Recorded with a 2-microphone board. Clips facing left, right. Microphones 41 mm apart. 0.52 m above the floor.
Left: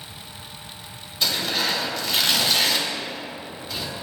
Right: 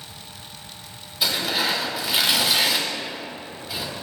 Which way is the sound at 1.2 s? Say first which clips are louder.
Right 1 dB; 10° right (ahead or behind).